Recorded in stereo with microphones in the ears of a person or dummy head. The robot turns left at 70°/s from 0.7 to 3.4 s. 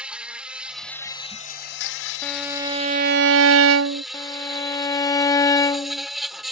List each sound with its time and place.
0.0 s an insect: 170° right; by 6.5 s straight ahead
2.2 s a violin: 10° left; by 4.0 s 70° right
4.1 s a violin: 15° left (ahead or behind)